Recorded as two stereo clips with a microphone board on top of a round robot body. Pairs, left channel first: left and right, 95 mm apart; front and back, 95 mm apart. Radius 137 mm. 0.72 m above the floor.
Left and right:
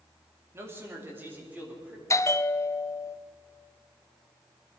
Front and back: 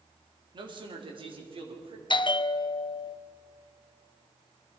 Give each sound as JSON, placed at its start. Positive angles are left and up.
{"t": 0.5, "sound": "a man speaking", "azimuth_deg": -155, "distance_m": 2.5}
{"t": 2.1, "sound": "a bell", "azimuth_deg": 30, "distance_m": 0.6}